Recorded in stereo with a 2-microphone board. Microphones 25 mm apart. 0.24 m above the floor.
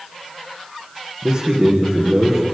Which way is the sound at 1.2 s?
45° right (ahead or behind).